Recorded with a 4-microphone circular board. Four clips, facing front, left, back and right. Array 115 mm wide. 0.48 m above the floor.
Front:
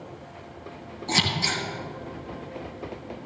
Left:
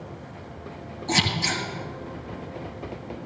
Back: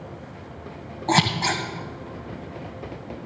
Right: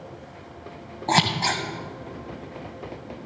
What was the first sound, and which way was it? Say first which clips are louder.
Scissors: right 4 dB, back 6 dB; 130° right.